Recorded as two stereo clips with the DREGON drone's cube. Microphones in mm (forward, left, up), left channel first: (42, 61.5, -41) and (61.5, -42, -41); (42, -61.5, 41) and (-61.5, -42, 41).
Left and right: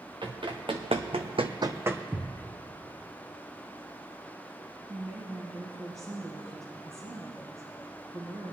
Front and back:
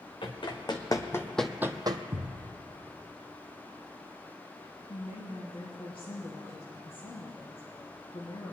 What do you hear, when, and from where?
0.2 s running footsteps: 45° right, 1.9 m; by 2.0 s 155° right, 0.9 m
2.1 s a thud: 155° right, 3 m
4.9 s a woman speaking: 25° right, 3 m